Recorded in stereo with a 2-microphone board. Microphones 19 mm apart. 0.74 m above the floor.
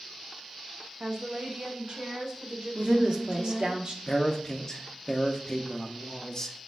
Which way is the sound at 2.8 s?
60° right (ahead or behind).